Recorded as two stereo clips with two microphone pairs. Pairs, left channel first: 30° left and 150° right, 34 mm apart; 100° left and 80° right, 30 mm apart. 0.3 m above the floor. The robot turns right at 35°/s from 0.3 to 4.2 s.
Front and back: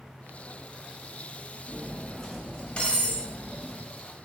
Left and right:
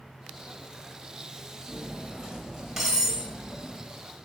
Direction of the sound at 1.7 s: 45° right.